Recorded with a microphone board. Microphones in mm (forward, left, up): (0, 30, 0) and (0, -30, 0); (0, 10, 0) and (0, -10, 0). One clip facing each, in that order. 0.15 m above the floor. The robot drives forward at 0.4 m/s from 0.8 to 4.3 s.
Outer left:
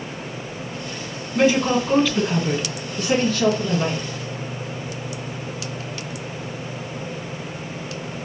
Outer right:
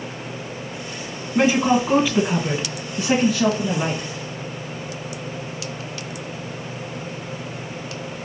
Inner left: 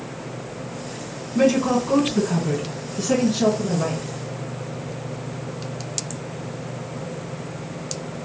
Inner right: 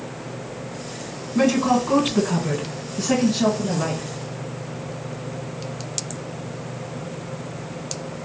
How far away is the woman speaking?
About 1.5 m.